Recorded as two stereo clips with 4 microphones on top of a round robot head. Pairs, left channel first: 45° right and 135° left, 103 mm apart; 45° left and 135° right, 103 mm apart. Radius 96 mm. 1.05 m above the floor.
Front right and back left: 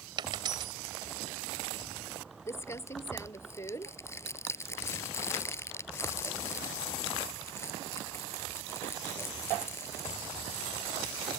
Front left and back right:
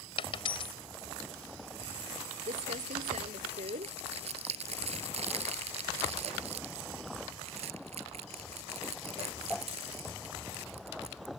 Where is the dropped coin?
85° left.